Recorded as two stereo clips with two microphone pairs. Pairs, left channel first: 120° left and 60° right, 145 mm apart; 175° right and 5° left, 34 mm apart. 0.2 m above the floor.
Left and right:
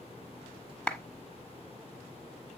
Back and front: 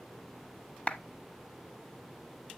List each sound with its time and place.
0.9 s a clap: 155° right, 0.9 m